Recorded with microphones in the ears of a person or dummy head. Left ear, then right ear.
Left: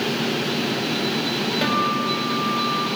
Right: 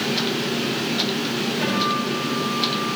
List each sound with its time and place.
1.6 s a guitar: 65° left (ahead or behind), 4.5 m